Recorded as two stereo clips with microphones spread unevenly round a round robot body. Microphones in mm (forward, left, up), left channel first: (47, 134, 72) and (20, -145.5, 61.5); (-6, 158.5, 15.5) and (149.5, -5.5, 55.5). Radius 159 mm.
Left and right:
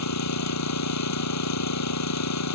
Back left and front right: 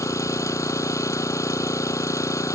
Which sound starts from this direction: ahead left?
An engine running, at 0.0 s.